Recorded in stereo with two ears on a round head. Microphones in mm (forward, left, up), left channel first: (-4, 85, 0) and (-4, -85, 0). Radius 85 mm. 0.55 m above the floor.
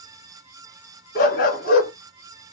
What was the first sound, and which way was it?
A dog barking, 50° left (ahead or behind).